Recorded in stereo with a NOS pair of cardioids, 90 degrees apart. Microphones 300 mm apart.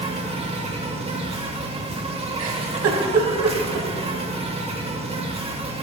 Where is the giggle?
60° right, 3 m.